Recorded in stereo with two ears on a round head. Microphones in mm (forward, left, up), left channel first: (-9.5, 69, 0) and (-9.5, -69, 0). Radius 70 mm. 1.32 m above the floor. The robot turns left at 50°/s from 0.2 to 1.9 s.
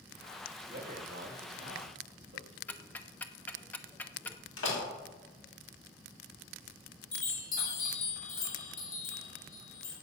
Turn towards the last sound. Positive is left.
turn(degrees=55)  # may be behind; listen again after turning